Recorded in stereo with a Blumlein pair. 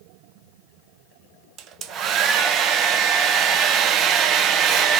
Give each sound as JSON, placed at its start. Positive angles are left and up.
{"t": 1.6, "sound": "a hair dryer", "azimuth_deg": -30, "distance_m": 0.5}